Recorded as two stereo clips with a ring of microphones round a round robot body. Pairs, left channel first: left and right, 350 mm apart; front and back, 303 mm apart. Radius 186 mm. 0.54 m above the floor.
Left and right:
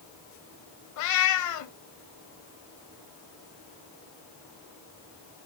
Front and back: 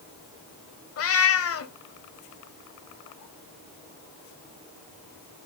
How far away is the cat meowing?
About 1.1 m.